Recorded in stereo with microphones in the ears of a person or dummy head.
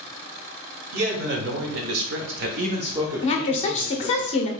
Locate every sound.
0.9 s a man speaking: 60° right (ahead or behind), 1.2 m; by 4.2 s 15° left (ahead or behind), 1.2 m
3.2 s a woman speaking: 30° left (ahead or behind), 0.7 m